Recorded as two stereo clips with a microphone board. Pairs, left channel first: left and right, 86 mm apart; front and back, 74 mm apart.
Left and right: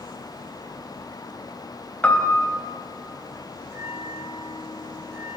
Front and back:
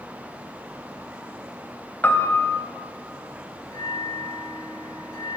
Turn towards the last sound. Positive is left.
turn(degrees=-35)